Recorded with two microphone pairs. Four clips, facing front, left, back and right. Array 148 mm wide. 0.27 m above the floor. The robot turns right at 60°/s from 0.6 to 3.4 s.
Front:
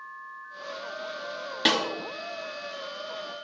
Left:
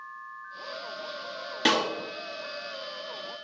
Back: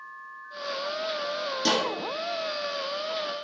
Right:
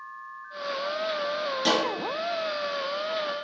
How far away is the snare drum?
About 1.0 m.